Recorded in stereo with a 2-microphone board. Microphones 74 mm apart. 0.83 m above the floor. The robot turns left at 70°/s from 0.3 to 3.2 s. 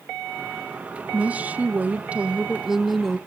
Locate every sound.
1.1 s a woman speaking: 15° right (ahead or behind), 0.5 m; by 3.2 s 5° left (ahead or behind), 0.5 m